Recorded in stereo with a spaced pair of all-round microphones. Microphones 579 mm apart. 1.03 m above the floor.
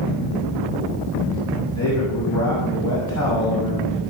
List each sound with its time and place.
1.8 s a man speaking: 30° left (ahead or behind), 6 m